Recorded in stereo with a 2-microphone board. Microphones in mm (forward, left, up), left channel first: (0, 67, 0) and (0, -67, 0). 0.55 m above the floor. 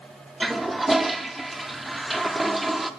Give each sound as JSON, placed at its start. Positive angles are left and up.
{"t": 0.4, "sound": "a toilet flushing", "side_deg": 0, "distance_m": 0.6}